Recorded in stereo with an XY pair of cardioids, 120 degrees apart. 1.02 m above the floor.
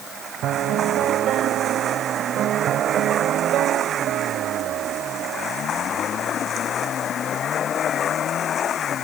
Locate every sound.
0.4 s a piano: 65° right